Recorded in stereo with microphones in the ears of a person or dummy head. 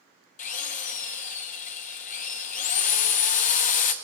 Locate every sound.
0.4 s a drill: 35° left (ahead or behind), 0.7 m